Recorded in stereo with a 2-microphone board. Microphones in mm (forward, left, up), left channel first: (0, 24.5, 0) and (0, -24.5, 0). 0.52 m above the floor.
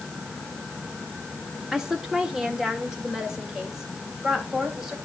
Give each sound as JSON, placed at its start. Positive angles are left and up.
{"t": 1.7, "sound": "a woman speaking", "side_deg": -15, "distance_m": 1.4}